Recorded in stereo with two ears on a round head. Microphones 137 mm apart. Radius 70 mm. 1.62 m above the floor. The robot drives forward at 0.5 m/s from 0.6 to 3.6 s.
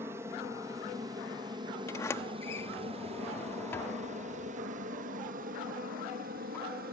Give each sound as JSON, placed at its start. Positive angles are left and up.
{"t": 0.0, "sound": "an aircraft", "side_deg": -15}
{"t": 1.9, "sound": "a sliding door", "side_deg": 20}